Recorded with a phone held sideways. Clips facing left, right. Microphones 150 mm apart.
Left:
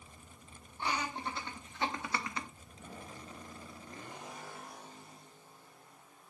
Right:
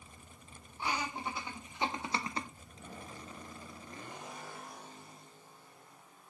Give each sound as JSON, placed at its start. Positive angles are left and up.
{"t": 0.8, "sound": "laughter", "side_deg": -5, "distance_m": 2.0}